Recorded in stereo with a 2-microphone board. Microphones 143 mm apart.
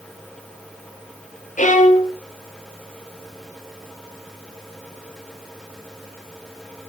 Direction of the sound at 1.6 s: 65° left (ahead or behind).